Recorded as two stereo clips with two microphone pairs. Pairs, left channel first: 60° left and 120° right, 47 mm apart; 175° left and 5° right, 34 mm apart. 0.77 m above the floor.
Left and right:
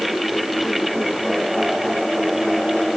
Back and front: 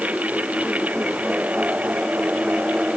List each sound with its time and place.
Only background noise.